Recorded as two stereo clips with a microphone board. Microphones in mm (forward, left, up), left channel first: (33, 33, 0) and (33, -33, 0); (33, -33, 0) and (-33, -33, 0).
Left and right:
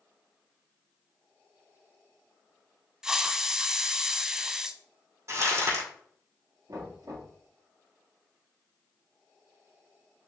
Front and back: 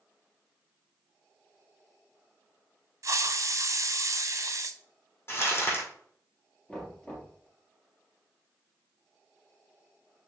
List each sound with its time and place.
3.0 s a hiss: 170° right, 0.5 m
5.3 s crumpling: 50° right, 3.5 m
6.7 s knocking: 70° right, 4 m